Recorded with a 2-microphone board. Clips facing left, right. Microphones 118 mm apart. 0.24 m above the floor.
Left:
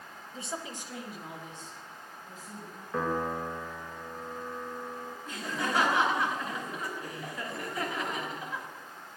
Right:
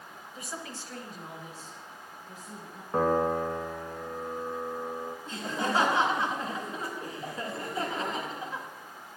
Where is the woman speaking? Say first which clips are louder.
Left 2 dB; 30° left (ahead or behind), 1.2 m; by 2.8 s 15° right (ahead or behind), 3 m.